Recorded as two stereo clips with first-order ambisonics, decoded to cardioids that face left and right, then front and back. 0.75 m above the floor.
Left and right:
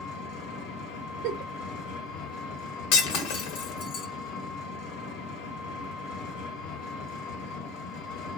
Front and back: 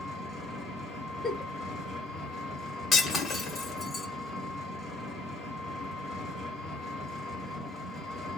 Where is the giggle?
75° right, 0.9 m.